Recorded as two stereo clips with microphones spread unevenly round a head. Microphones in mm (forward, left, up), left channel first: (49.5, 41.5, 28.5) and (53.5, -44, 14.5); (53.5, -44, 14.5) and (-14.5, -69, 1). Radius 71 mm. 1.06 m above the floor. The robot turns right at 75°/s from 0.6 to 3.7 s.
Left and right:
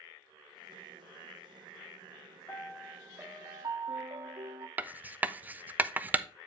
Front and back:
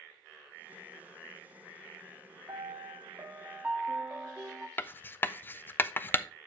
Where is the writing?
40° right, 0.5 m.